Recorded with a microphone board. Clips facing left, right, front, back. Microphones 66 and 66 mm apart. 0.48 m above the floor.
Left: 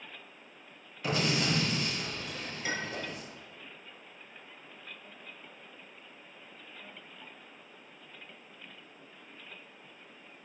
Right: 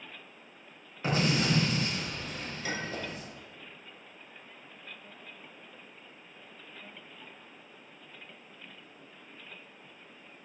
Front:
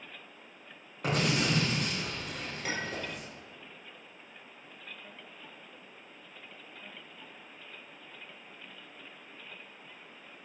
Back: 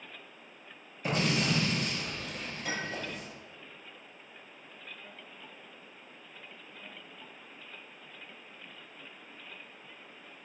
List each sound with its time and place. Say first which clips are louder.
1.0 s an explosion: right 2 dB, front 1 dB; 25° right, 3 m
2.6 s a clink: even, even; 20° left, 4 m